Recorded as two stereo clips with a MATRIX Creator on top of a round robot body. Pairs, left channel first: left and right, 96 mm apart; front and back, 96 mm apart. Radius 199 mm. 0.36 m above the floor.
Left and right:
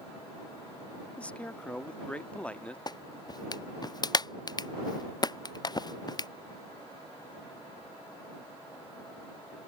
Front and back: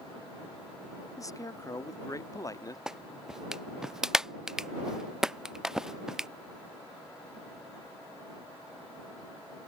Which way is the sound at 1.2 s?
20° left.